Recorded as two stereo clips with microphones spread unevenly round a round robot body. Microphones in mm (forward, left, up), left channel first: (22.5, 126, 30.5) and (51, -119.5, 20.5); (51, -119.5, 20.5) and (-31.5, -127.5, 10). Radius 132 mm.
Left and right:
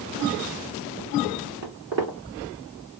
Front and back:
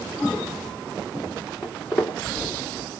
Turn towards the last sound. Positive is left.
turn(degrees=-55)